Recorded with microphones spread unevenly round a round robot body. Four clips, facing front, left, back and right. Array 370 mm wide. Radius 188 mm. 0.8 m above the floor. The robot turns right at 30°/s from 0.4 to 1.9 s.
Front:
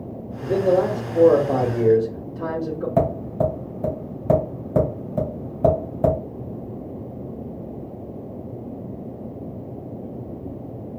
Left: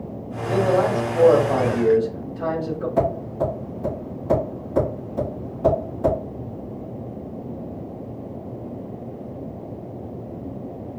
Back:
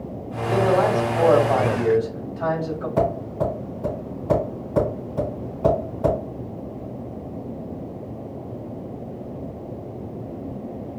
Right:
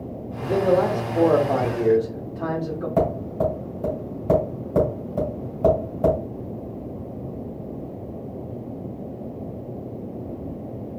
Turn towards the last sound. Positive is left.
turn(degrees=-15)